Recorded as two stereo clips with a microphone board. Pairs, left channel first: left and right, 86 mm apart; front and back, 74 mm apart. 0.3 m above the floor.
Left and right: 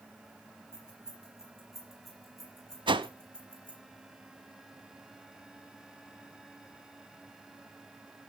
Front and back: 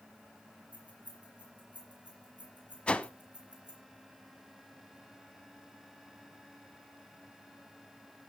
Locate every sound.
0.7 s keys jangling: 170° right, 6.5 m; by 3.8 s 165° left, 5.5 m
2.9 s a whoosh: 75° right, 0.7 m